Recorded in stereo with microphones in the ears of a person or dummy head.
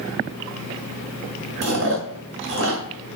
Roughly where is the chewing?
Right.